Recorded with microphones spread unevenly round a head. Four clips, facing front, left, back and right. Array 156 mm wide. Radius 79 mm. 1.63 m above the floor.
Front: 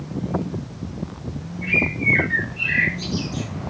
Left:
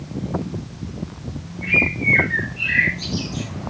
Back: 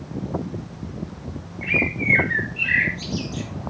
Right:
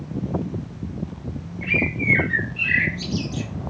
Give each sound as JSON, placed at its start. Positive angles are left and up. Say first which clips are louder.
{"t": 1.6, "sound": "a bird", "louder": "left 2 dB, front 1 dB", "azimuth_deg": -65, "distance_m": 2.5}